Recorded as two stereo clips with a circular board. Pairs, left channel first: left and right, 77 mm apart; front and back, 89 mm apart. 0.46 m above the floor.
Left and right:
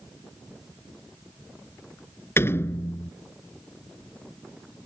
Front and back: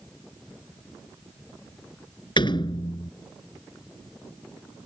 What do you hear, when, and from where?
2.4 s a door slam: 30° left